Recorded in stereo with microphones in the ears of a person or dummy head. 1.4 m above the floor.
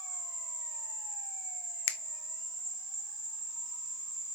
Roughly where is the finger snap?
Left.